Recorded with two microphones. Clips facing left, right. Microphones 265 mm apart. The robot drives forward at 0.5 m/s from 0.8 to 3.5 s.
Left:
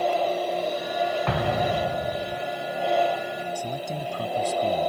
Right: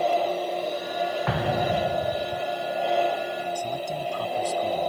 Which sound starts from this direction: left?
A man speaking, at 3.5 s.